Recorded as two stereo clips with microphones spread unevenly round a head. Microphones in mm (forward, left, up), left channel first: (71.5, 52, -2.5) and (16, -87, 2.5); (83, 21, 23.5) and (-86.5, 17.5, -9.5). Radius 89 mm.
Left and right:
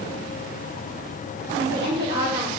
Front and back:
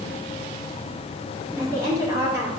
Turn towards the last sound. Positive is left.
turn(degrees=-105)